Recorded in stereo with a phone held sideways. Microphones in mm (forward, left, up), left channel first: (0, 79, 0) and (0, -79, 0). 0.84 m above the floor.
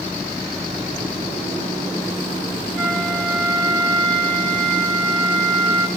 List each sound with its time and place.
2.8 s a flute: 5° left (ahead or behind), 3 m